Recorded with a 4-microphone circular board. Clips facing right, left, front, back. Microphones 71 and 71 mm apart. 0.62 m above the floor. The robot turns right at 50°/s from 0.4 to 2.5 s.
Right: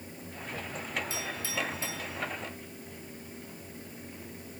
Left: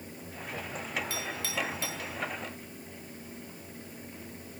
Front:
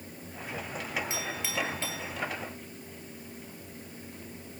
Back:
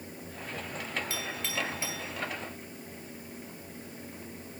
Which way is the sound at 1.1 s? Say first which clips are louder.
Even, front 1 dB; 70° left.